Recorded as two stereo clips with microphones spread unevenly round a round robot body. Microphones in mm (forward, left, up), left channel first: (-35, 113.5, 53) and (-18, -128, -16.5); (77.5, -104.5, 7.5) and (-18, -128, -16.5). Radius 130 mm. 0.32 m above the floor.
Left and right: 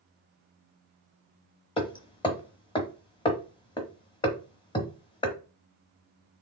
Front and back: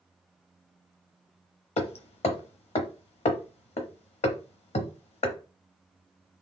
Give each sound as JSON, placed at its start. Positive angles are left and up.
{"t": 1.8, "sound": "hammering", "azimuth_deg": 15, "distance_m": 0.9}